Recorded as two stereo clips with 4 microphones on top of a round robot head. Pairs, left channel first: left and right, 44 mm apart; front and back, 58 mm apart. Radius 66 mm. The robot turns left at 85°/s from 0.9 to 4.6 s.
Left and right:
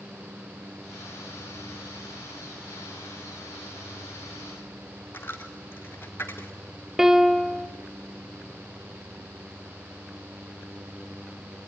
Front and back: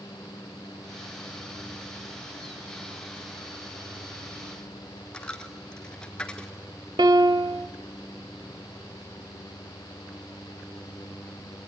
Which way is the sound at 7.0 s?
170° right.